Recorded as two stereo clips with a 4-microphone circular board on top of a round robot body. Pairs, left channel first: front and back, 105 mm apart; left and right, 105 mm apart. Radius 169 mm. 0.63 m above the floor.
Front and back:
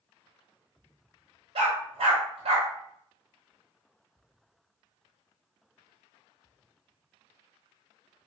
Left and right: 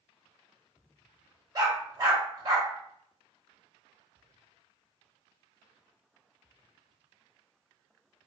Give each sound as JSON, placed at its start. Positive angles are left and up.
{"t": 1.6, "sound": "a dog barking", "azimuth_deg": -145, "distance_m": 1.2}